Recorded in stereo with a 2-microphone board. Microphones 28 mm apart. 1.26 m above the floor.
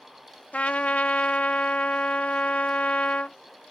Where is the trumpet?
60° left (ahead or behind).